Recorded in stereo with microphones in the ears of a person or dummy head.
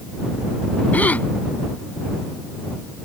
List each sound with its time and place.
0.9 s a gasp: 10° left (ahead or behind)